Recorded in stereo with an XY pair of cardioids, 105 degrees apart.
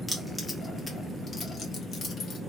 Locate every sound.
0.1 s keys jangling: 5° left, 1.2 m; by 2.4 s 60° left, 1.5 m